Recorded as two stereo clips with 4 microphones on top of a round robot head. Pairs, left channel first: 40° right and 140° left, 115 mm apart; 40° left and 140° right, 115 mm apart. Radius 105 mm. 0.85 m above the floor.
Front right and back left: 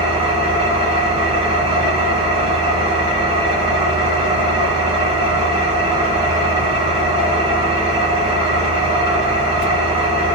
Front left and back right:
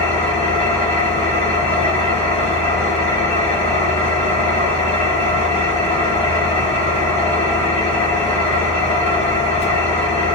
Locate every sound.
0.0 s an engine running: 80° left, 2 m